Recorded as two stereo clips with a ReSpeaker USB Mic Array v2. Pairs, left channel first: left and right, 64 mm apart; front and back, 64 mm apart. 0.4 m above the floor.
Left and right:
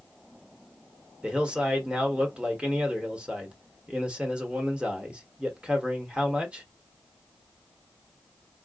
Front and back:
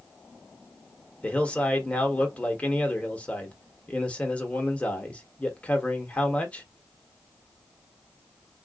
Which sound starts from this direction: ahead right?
A man speaking, at 1.2 s.